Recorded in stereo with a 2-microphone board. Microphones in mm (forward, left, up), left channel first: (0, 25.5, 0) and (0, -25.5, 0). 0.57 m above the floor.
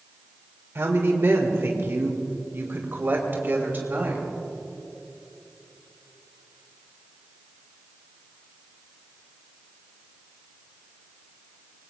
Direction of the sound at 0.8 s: 60° right (ahead or behind).